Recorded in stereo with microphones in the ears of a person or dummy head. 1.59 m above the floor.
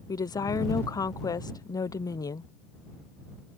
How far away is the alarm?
No alarm in this recording.